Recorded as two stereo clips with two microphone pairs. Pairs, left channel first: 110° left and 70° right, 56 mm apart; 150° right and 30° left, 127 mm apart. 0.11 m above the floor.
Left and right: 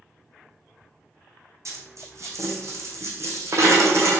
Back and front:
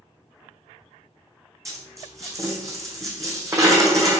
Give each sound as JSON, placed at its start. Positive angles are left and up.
{"t": 1.6, "sound": "a dropped coin", "azimuth_deg": -35, "distance_m": 2.0}